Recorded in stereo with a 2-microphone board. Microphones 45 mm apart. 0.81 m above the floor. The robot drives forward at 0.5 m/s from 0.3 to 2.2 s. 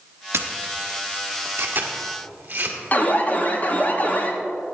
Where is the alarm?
40° left (ahead or behind), 1.0 m.